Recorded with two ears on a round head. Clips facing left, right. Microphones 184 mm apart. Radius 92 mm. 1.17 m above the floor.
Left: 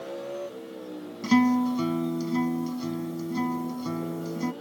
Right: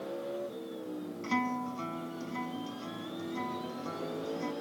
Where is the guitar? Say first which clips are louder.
Left 14 dB; 55° left (ahead or behind).